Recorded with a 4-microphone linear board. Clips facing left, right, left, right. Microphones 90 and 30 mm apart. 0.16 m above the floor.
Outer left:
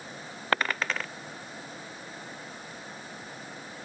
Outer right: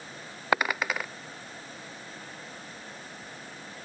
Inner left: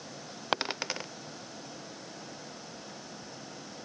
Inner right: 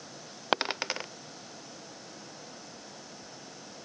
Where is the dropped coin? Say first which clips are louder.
Outer right 1 dB, inner right 2 dB; 10° right (ahead or behind).